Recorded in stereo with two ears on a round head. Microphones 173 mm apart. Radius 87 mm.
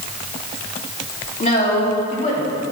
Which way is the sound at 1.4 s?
35° left (ahead or behind).